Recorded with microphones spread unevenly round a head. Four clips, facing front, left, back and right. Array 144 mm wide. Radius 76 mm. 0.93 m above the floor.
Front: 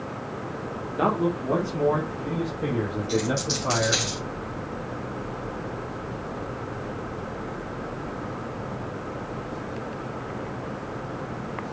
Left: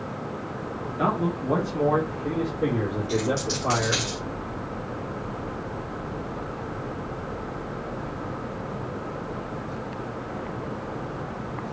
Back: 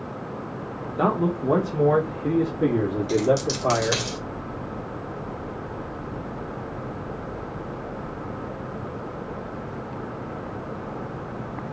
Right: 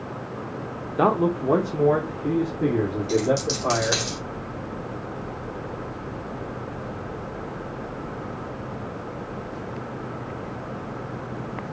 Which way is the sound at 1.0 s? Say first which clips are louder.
Right 5 dB, back 1 dB; 95° right.